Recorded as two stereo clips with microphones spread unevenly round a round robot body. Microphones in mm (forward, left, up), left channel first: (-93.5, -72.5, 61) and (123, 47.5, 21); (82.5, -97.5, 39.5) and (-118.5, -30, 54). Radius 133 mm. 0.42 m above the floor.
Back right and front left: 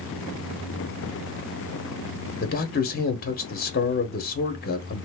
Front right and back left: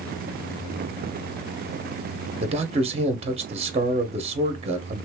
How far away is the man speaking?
About 0.8 m.